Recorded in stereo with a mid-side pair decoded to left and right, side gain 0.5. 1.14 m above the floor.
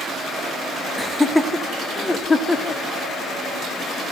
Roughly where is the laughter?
Ahead.